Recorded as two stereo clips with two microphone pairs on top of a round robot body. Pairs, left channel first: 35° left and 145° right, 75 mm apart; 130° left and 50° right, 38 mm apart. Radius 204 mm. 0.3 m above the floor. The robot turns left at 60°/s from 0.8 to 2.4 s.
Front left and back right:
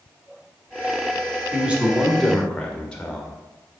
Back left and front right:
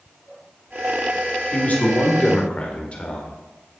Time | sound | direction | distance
1.5 | a man speaking | 155° left | 1.8 m